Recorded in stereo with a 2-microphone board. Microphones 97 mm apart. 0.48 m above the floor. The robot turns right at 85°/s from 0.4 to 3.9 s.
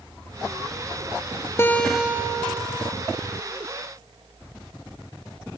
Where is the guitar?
155° left, 1.4 m; by 2.6 s 120° right, 1.4 m.